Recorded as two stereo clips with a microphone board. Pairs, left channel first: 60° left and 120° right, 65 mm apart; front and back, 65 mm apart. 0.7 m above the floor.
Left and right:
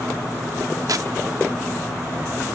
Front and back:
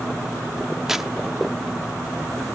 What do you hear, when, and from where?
0.9 s tearing paper: 95° right, 0.6 m